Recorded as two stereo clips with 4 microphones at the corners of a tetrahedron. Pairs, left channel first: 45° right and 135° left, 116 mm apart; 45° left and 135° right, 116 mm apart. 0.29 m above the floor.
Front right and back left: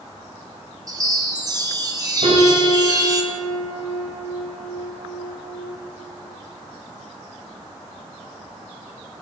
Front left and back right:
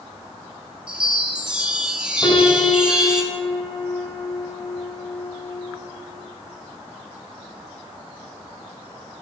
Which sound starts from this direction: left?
A piano, at 2.2 s.